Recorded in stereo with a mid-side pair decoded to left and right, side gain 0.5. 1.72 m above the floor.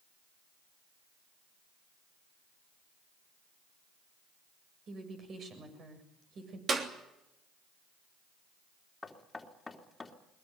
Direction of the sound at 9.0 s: 20° left.